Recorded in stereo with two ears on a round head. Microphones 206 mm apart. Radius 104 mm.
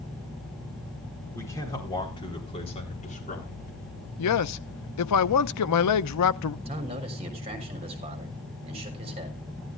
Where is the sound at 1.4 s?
10° left (ahead or behind), 4.5 m; by 3.7 s 40° left (ahead or behind), 4 m.